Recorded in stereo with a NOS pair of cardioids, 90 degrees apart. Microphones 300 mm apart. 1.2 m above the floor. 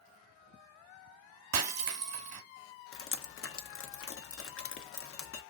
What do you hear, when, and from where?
1.5 s breaking glass: 60° right, 1.1 m
2.9 s dripping: 45° left, 0.8 m